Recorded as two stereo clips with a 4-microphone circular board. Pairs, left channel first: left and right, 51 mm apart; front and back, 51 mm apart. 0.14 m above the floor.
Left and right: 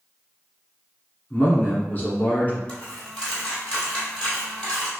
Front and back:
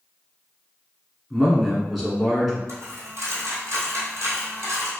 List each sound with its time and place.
1.3 s a man speaking: 95° left, 1.3 m
2.7 s a dropped coin: 155° left, 1.5 m